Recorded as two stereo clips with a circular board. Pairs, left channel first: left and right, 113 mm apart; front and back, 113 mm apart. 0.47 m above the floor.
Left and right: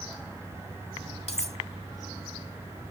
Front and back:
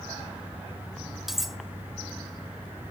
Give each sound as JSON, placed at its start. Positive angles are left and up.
{"t": 1.3, "sound": "cutlery clinking", "azimuth_deg": 90, "distance_m": 1.0}